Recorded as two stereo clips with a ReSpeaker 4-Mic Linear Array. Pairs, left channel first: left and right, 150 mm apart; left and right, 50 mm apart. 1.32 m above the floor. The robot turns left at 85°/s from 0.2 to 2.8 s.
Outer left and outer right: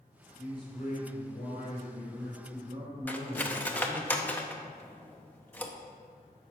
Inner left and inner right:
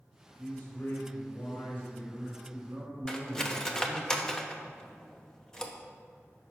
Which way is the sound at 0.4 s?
160° left.